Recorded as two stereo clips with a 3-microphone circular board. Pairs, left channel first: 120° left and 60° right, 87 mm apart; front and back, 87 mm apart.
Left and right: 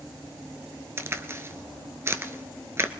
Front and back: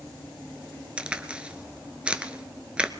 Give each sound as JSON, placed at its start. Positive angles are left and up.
{"t": 1.0, "sound": "a crack", "azimuth_deg": -110, "distance_m": 0.7}